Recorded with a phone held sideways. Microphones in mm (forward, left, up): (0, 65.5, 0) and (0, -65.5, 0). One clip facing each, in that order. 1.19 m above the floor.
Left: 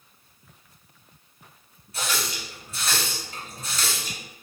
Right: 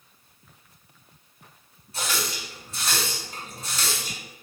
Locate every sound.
1.9 s a running tap: 30° right (ahead or behind), 1.7 m